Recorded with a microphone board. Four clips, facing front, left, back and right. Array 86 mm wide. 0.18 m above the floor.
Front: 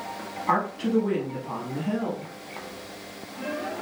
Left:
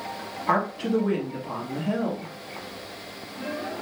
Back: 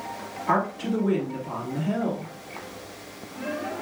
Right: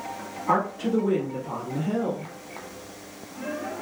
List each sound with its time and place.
0.5 s a woman speaking: 50° left, 1.1 m